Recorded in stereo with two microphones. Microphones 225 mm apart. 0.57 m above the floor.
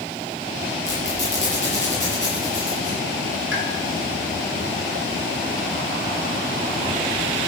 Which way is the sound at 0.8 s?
55° left (ahead or behind).